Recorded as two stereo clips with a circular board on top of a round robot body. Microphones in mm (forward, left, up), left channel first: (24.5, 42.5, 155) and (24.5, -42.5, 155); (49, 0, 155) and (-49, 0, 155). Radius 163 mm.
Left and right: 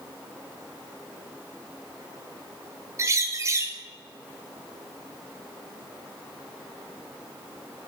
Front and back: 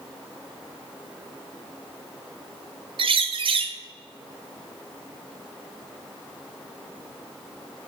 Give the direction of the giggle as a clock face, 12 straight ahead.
No giggle in this recording.